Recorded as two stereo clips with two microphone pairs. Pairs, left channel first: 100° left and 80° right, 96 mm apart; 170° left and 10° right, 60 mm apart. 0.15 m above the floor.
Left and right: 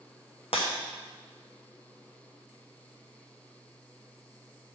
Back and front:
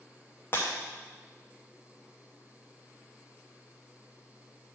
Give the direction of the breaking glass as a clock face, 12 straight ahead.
8 o'clock.